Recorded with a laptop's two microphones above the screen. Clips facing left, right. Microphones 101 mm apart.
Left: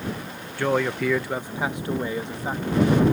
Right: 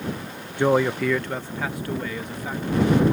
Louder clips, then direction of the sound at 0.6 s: Right 3 dB; 20° right (ahead or behind).